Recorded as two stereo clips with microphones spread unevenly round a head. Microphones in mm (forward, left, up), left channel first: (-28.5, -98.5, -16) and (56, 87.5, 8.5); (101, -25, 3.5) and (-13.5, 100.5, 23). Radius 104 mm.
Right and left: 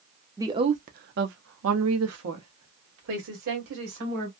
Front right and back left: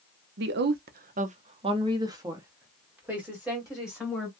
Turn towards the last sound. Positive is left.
turn(degrees=45)